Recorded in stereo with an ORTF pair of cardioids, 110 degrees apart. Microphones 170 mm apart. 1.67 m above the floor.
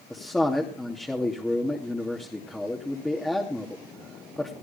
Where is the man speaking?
Straight ahead, 2.5 m.